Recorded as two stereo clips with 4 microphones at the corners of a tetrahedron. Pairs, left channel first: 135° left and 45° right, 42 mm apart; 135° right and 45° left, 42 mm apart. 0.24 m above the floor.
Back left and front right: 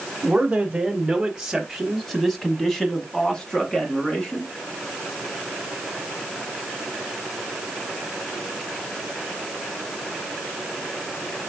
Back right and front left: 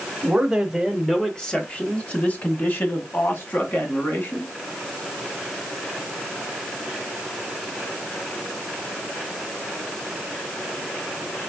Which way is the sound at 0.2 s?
20° right.